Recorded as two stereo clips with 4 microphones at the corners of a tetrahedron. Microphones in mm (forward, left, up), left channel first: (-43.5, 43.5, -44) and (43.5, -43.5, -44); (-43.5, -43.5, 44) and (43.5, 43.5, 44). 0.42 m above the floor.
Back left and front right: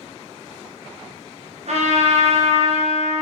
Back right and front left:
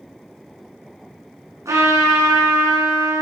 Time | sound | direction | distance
1.6 | a trumpet | 20° right | 2.5 m